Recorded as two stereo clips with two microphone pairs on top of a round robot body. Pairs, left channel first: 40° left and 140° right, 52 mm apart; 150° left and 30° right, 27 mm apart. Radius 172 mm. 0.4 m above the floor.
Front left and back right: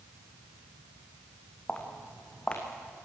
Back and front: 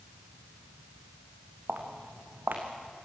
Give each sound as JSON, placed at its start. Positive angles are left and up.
{"t": 1.7, "sound": "footsteps", "azimuth_deg": -30, "distance_m": 2.5}